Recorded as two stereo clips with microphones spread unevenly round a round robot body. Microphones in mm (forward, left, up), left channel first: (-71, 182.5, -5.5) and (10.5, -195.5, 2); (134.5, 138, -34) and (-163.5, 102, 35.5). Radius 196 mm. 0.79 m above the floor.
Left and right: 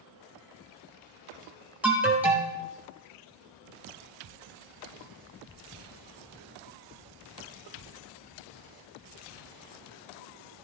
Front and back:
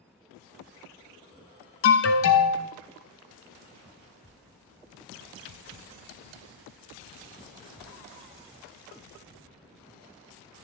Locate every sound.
1.8 s an alarm: 10° left, 1.0 m